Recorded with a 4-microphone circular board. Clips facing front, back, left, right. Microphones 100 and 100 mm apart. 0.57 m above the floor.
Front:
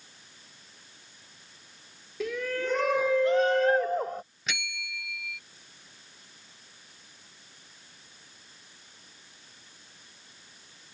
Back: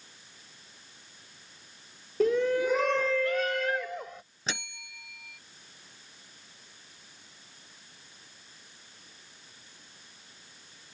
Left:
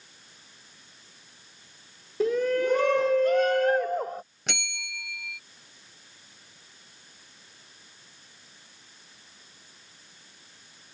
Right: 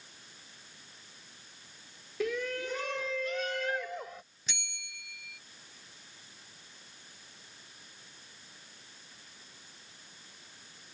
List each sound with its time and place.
2.2 s a shout: 140° left; by 4.2 s 45° left
4.5 s a bell: 120° left